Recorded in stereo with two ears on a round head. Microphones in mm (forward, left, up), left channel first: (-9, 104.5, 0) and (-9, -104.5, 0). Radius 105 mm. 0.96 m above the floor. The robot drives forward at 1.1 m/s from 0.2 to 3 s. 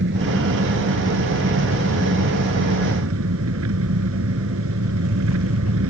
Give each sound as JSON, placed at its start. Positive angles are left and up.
{"t": 0.0, "sound": "an engine running", "side_deg": -55}